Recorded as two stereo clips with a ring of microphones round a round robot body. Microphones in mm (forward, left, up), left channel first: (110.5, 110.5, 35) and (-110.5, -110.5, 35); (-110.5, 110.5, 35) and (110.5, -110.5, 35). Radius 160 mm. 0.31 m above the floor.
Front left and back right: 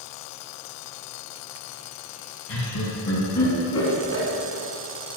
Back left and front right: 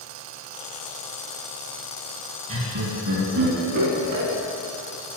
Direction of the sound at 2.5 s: 20° left.